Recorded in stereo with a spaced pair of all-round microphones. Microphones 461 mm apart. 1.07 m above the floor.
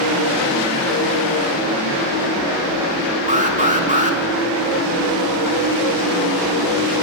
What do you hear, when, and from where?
3.3 s an alarm: 15° right (ahead or behind), 3 m